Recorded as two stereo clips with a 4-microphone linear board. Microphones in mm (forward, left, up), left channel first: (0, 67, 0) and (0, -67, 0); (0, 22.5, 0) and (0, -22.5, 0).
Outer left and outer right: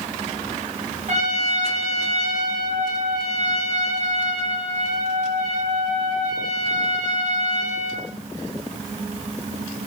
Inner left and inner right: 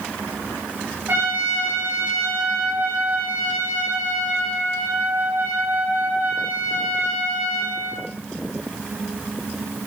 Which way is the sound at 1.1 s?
60° right (ahead or behind).